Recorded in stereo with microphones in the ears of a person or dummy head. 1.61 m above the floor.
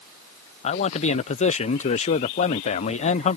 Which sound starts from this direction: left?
A man speaking, at 0.6 s.